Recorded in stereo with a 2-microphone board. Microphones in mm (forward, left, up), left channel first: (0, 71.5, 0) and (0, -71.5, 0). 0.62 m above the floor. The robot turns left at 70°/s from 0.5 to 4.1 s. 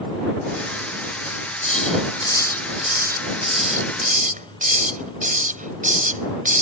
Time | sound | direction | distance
1.3 | a hiss | 70° left (ahead or behind) | ?